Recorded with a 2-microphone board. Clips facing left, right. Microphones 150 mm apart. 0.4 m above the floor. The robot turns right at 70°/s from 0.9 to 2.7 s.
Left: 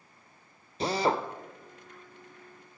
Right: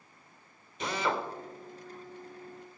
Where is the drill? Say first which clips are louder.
Left 4 dB; 35° left (ahead or behind), 0.8 m; by 1.3 s 40° left (ahead or behind), 0.8 m.